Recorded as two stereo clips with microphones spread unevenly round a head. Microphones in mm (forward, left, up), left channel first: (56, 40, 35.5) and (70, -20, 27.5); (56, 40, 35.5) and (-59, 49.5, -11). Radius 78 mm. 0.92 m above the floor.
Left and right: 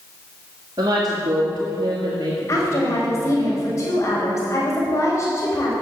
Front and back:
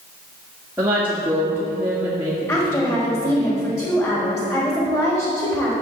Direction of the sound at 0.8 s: 110° right.